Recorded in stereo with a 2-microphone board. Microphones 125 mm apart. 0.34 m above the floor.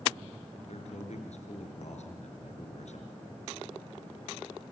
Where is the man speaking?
65° left (ahead or behind), 5.5 m.